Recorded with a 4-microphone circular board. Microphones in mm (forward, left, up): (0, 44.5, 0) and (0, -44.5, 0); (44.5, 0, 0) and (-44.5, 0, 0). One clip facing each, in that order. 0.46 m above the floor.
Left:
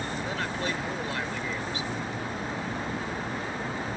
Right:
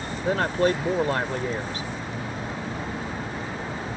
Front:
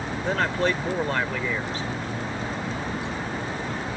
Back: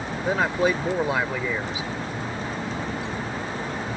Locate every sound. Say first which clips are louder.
0.2 s a man speaking: right 13 dB, back 2 dB; 105° right